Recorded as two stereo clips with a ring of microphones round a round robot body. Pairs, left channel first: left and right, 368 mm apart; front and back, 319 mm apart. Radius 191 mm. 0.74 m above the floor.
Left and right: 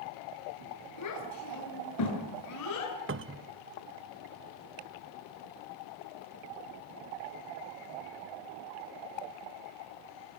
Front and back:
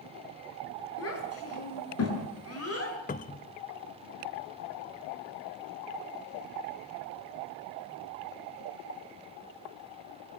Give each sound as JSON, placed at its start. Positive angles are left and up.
{"t": 1.0, "sound": "a child speaking", "azimuth_deg": 45, "distance_m": 9.0}
{"t": 3.1, "sound": "a cupboard door", "azimuth_deg": -50, "distance_m": 0.6}